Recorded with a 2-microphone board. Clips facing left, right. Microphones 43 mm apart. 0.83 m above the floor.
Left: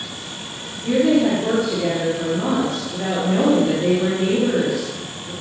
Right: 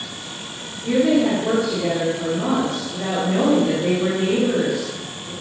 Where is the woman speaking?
40° left (ahead or behind), 1.7 m.